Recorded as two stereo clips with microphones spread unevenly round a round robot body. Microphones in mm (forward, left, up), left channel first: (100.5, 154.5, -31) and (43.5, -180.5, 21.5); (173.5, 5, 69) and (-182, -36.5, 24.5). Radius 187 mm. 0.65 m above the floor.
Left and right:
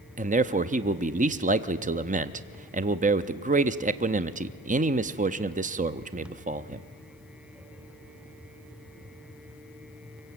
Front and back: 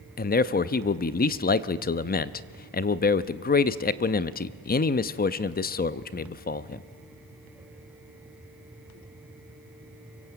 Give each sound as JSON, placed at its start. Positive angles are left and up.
{"t": 0.2, "sound": "a man speaking", "azimuth_deg": -40, "distance_m": 0.6}